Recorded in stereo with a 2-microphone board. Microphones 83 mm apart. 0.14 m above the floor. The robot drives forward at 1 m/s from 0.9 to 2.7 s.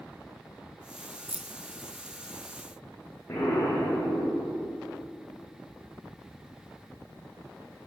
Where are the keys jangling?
15° right (ahead or behind), 0.8 m; by 1.6 s 10° right (ahead or behind), 0.9 m.